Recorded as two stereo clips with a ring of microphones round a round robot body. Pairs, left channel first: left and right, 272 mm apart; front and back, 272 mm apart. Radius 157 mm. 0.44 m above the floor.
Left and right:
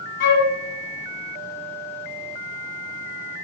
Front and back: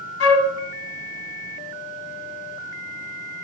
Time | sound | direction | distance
0.2 | a flute | 35° left | 0.7 m